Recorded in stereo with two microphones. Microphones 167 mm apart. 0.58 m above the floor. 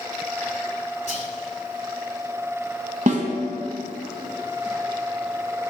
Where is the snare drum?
50° right (ahead or behind), 1.2 m.